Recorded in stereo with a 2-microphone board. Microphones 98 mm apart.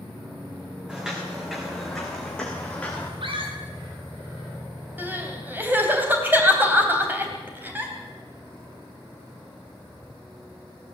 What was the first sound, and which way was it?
Footsteps, 10° right (ahead or behind).